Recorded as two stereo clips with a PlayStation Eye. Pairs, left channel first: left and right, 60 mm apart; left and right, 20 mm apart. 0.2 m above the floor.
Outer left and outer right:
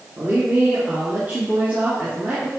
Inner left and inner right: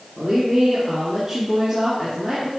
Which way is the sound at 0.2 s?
35° right (ahead or behind).